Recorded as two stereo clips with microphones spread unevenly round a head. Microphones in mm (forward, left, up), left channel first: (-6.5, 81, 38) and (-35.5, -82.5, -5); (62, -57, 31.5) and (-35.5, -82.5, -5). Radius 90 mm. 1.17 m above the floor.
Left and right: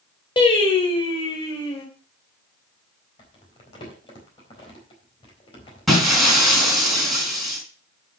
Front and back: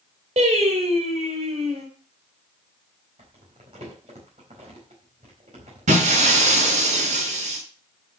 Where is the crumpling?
140° left, 4 m.